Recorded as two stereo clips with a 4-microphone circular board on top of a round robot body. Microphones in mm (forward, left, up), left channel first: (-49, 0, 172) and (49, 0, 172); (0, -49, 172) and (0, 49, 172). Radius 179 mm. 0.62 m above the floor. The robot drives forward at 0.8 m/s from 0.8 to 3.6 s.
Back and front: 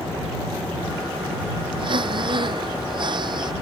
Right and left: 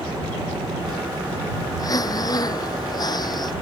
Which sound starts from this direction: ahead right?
Breathing, at 1.8 s.